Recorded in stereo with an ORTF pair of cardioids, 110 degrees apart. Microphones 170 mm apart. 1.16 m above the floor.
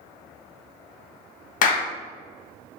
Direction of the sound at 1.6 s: 55° left.